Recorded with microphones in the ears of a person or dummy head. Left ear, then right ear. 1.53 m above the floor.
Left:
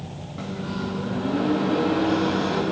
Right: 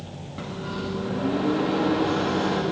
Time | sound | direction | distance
0.4 | a microwave | 15° right (ahead or behind) | 1.8 m